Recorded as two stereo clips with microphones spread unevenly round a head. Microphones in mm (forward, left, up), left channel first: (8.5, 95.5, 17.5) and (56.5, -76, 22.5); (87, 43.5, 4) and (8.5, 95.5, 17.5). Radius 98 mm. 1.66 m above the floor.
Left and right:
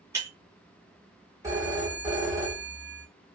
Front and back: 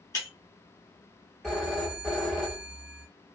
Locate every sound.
0.1 s breaking glass: 25° right, 1.7 m
1.4 s a phone ringing: 135° right, 0.9 m